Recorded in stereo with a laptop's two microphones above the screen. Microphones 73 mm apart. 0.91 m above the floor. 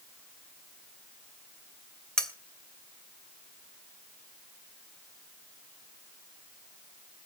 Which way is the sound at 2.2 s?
5° left (ahead or behind).